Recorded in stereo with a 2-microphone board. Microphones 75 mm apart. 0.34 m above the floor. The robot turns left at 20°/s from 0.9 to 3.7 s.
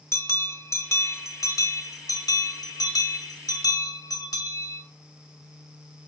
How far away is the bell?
About 0.6 m.